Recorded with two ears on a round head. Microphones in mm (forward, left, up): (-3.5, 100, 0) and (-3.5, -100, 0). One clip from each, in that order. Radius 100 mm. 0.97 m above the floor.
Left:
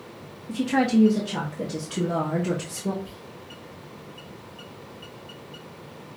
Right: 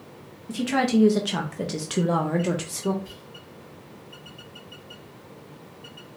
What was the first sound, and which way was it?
A woman speaking, 35° right (ahead or behind).